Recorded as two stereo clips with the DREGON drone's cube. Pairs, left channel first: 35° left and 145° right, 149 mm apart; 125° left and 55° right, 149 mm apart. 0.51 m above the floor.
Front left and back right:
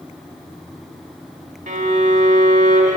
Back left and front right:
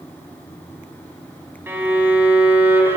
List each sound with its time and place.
1.7 s a violin: 130° right, 0.7 m